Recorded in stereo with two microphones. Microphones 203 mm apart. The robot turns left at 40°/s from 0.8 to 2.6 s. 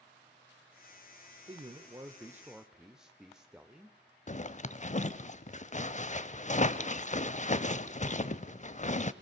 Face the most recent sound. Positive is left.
turn(degrees=35)  # may be behind; listen again after turning